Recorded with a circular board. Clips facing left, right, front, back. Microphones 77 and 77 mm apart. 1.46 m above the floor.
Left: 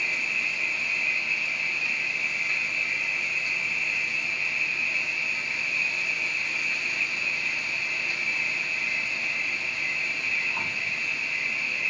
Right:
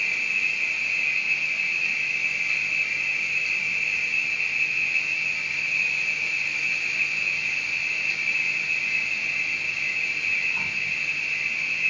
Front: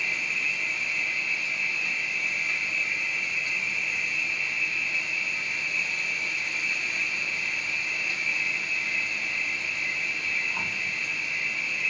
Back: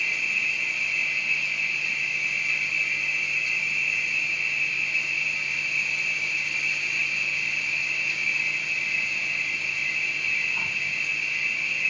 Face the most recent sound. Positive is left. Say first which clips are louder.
# right 2 dB, back 1 dB
turn(degrees=40)